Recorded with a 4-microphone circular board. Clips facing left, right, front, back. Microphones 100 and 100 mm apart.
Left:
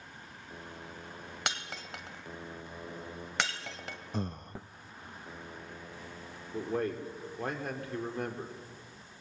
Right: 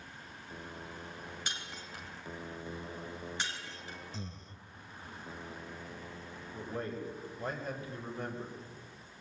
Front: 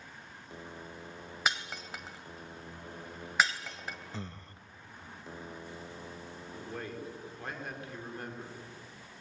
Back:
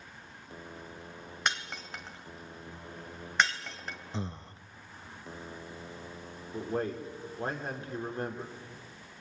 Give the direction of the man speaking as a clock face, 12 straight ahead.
8 o'clock.